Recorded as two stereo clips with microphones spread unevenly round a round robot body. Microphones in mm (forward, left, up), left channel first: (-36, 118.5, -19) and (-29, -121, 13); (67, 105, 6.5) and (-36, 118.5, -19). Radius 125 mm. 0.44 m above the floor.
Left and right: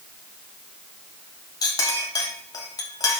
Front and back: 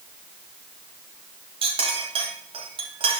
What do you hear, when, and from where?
1.6 s a clink: 165° left, 1.9 m